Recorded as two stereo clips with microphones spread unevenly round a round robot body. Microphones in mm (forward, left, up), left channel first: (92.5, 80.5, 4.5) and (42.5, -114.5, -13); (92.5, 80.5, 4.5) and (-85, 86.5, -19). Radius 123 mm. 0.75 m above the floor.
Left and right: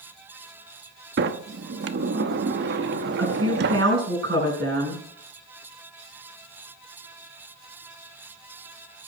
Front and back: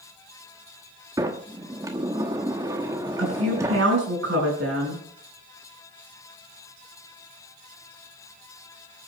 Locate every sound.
1.2 s a sliding door: 110° right, 0.9 m
3.2 s a woman speaking: 145° right, 5.5 m